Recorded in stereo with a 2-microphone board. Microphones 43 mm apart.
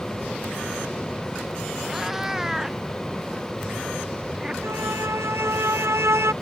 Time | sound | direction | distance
1.9 | a cat meowing | 10° right (ahead or behind) | ?
4.6 | a violin | 70° right (ahead or behind) | ?